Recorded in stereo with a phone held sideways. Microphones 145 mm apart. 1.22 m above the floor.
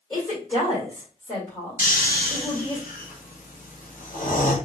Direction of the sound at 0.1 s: 20° left (ahead or behind).